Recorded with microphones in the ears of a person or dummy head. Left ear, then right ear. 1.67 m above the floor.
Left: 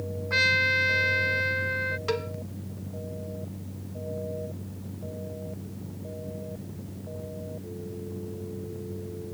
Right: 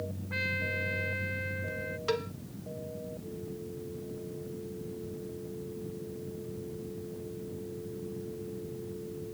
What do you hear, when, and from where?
0.3 s a trumpet: 55° left (ahead or behind)
2.1 s a cowbell: 5° right (ahead or behind)